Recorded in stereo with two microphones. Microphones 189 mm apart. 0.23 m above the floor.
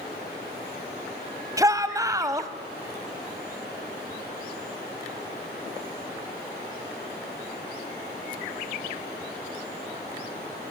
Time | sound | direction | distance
1.6 | a shout | 20° right (ahead or behind) | 1.2 m